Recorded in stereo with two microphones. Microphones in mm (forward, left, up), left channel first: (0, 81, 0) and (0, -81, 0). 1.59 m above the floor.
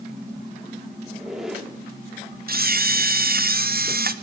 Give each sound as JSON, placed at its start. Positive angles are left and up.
{"t": 1.1, "sound": "a squeak", "side_deg": -5, "distance_m": 2.5}
{"t": 2.5, "sound": "a camera shutter", "side_deg": -60, "distance_m": 0.6}